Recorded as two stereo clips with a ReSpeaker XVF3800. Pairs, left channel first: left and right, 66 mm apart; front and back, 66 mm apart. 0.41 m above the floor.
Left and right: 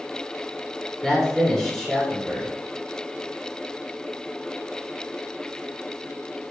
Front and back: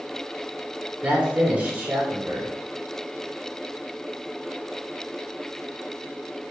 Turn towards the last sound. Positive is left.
turn(degrees=160)